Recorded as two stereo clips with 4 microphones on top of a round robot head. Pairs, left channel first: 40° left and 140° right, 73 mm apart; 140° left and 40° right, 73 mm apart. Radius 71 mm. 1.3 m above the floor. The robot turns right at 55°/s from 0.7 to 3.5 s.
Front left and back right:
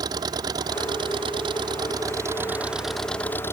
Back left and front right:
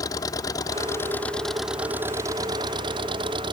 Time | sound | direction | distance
0.0 | an engine running | 175° right | ?